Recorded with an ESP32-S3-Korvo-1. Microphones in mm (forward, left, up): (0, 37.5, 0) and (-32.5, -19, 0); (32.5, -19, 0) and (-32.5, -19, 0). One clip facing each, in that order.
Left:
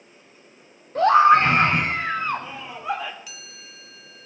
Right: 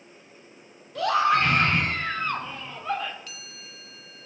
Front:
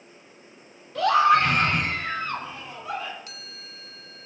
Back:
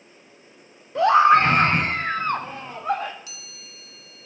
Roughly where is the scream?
Behind left.